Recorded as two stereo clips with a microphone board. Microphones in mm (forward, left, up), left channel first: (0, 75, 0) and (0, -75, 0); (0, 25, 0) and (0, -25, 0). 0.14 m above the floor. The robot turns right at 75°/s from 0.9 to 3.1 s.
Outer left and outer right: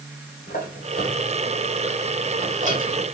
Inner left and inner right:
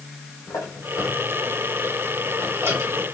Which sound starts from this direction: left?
A squeak, at 0.5 s.